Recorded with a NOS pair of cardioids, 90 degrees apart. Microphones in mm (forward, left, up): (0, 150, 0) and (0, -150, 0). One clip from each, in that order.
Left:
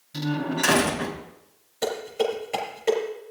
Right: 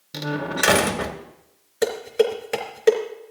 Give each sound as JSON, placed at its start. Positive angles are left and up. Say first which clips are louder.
{"t": 0.1, "sound": "a door slam", "louder": "right 2 dB", "azimuth_deg": -70, "distance_m": 2.0}
{"t": 1.8, "sound": "dishes clattering", "louder": "right 5 dB", "azimuth_deg": -65, "distance_m": 3.5}